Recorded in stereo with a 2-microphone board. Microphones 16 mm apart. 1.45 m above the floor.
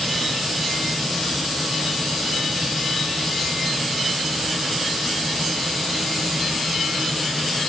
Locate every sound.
Only background noise.